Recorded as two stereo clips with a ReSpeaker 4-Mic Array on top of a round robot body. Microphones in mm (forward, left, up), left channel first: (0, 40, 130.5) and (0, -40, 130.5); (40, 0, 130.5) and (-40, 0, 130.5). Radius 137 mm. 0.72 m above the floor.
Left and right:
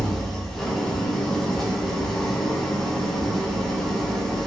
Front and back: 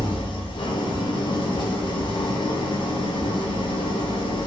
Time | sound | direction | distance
0.0 | an engine running | 5° left | 1.1 m